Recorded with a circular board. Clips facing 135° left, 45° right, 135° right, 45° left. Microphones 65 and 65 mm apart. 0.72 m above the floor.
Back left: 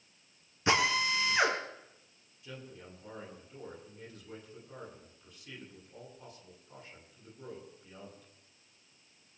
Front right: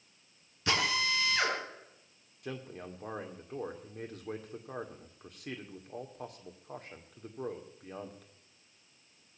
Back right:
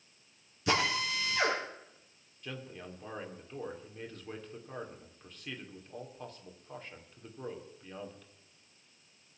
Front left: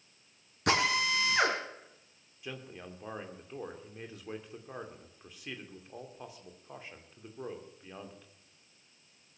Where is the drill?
70° left, 3.5 m.